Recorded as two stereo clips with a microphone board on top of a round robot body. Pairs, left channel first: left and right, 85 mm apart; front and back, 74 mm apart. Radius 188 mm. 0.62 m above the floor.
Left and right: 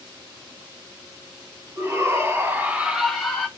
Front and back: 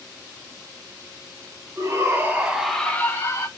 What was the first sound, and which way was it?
A shout, 140° right.